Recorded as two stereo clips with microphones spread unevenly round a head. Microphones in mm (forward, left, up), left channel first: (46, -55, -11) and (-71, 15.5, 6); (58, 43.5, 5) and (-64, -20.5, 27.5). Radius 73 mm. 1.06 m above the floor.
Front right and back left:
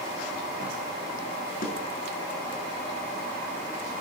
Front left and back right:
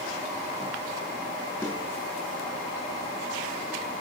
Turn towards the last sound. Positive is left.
turn(degrees=-50)